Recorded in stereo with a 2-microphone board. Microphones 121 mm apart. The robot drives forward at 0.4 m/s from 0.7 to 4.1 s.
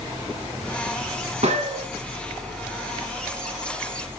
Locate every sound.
1.4 s a gunshot: 65° right (ahead or behind), 2.5 m; by 1.9 s 60° right (ahead or behind), 2.5 m